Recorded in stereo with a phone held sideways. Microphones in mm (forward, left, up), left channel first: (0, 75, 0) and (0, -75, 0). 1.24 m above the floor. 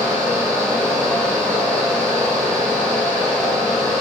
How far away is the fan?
About 1.2 m.